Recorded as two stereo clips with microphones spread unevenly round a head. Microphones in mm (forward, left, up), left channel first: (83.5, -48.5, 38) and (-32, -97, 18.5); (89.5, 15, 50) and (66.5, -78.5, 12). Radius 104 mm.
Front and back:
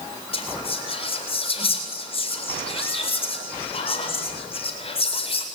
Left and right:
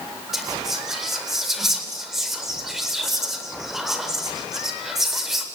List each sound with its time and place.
0.3 s whispering: 15° right, 8 m